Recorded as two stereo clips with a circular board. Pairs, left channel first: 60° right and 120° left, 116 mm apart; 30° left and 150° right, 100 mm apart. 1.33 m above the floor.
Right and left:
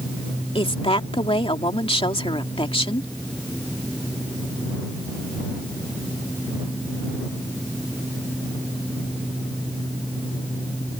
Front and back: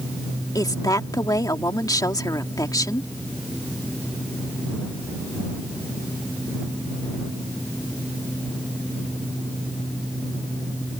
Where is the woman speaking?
20° right.